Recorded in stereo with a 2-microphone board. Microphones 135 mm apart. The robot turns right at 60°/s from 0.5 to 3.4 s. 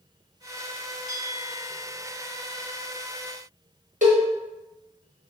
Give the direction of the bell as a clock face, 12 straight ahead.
3 o'clock.